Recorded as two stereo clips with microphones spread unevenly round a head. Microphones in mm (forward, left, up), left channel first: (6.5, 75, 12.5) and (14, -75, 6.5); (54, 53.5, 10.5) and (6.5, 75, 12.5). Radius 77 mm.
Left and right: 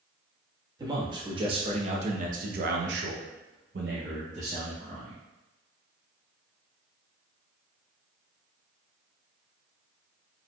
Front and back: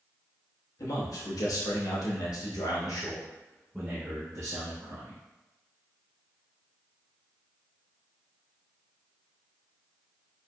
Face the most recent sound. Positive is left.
turn(degrees=-145)